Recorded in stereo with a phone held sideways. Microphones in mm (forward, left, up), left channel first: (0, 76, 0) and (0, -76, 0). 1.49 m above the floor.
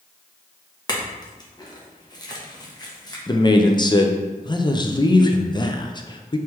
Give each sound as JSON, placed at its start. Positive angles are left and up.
{"t": 0.9, "sound": "a clink", "side_deg": 25, "distance_m": 0.8}
{"t": 3.3, "sound": "a man speaking", "side_deg": 30, "distance_m": 0.5}